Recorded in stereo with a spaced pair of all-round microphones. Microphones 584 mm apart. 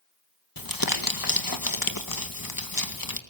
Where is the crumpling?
35° left (ahead or behind), 2.0 m.